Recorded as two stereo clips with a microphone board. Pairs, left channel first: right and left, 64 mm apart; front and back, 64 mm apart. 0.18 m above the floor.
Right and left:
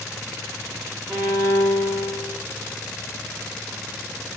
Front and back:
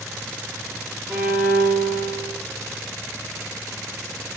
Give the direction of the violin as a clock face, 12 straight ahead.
8 o'clock.